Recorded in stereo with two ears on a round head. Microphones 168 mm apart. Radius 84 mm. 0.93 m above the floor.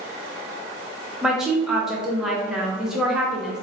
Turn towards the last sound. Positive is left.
turn(degrees=-5)  # may be behind; listen again after turning